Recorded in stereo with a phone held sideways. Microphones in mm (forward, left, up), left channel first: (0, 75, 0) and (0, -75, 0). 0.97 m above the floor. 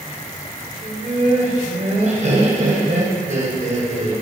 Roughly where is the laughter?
Right.